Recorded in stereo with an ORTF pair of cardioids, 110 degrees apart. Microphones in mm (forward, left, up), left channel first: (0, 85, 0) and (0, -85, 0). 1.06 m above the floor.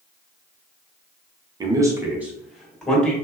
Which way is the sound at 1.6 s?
25° right.